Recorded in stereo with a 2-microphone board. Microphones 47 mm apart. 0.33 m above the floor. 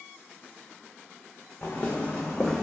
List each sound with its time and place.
1.6 s footsteps: 35° left (ahead or behind), 1.0 m; by 2.6 s centre (ahead or behind), 0.8 m